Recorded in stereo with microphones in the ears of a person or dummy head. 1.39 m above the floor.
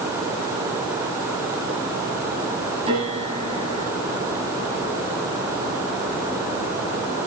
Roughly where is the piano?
Right.